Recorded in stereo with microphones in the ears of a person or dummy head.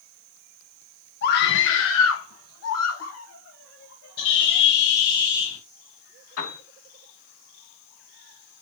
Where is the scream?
55° left (ahead or behind), 1.5 m; by 4.6 s 65° left (ahead or behind), 3.5 m.